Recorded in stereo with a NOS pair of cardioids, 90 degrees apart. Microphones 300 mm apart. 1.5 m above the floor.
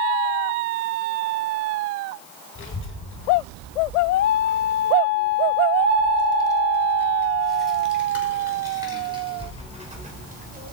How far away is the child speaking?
About 5 m.